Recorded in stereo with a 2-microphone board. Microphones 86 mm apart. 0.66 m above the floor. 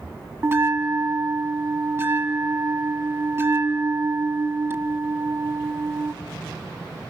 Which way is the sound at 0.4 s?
30° right (ahead or behind).